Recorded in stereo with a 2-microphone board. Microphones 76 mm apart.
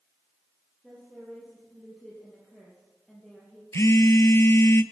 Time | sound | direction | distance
0.8 | a woman speaking | 5° left (ahead or behind) | 3.5 m
3.7 | a phone buzzing | 40° left (ahead or behind) | 0.5 m